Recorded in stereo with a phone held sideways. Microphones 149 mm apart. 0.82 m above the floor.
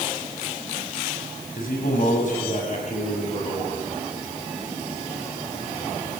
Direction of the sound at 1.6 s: 70° left (ahead or behind).